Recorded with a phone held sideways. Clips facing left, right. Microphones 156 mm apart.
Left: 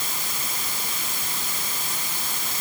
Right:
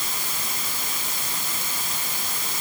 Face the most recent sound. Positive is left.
No sound to turn to.